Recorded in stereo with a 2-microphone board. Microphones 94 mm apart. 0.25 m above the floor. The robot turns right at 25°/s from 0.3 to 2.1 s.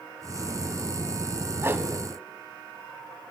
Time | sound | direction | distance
1.6 | a whoosh | 25° right (ahead or behind) | 1.6 m